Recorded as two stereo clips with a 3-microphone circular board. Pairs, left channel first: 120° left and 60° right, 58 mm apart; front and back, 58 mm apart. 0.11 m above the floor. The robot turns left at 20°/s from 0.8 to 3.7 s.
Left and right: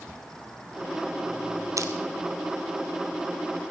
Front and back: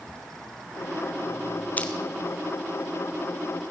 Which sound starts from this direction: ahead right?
Crushing, at 1.8 s.